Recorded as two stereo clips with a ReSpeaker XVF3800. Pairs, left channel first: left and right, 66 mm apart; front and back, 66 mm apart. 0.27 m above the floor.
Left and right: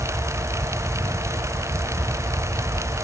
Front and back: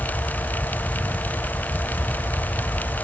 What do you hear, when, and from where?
Only background noise.